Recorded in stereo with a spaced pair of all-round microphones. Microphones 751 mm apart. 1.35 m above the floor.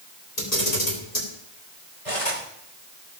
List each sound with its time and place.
0.4 s a camera shutter: 55° left (ahead or behind), 4.5 m
2.0 s cutlery clinking: 45° left (ahead or behind), 3.5 m